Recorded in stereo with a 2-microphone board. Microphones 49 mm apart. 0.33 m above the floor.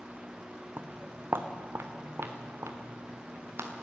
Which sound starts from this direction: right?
Footsteps, at 0.8 s.